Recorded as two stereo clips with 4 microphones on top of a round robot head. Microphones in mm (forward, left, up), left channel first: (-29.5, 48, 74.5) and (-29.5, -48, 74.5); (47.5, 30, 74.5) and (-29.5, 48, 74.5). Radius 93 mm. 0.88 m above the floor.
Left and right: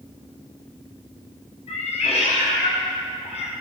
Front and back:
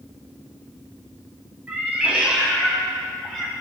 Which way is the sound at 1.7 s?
95° left.